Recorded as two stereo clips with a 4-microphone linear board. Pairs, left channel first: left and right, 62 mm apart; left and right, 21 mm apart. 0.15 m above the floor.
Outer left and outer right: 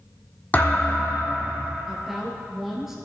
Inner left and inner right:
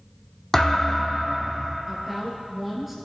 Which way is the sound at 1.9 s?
5° right (ahead or behind).